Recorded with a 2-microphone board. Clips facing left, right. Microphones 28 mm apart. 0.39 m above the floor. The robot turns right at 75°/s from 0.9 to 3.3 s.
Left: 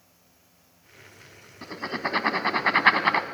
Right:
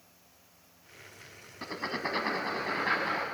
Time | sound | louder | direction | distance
1.6 | writing | left 4 dB | 5° right (ahead or behind) | 1.3 m